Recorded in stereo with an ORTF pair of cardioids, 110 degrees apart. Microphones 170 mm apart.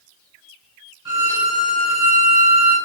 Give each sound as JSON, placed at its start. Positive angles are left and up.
{"t": 1.1, "sound": "a violin", "azimuth_deg": -20, "distance_m": 1.3}